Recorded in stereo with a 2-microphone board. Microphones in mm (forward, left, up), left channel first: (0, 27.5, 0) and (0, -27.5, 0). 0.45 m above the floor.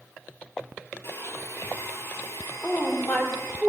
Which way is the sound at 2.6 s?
35° left (ahead or behind).